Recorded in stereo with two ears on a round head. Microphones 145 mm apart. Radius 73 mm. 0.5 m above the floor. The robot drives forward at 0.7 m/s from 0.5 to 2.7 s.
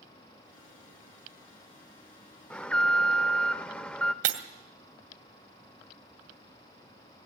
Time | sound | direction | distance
2.5 | an alarm | 10° left (ahead or behind) | 0.8 m
4.2 | breaking glass | 75° right (ahead or behind) | 1.7 m